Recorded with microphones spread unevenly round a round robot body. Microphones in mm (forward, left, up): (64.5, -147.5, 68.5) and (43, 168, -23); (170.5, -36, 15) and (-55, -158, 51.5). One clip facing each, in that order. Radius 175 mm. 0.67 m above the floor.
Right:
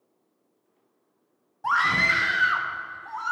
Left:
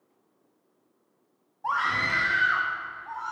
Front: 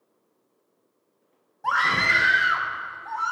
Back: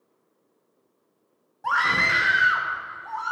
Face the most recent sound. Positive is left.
turn(degrees=-60)